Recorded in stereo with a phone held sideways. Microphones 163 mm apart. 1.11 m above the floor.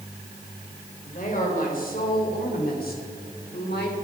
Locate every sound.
1.0 s a woman speaking: 55° left (ahead or behind), 4 m; by 4.0 s 80° left, 3 m